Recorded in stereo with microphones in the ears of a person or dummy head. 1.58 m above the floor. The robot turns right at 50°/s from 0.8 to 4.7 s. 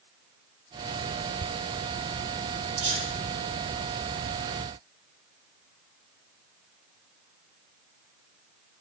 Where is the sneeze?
40° right (ahead or behind), 2.5 m; by 3.1 s 25° right (ahead or behind), 2.5 m.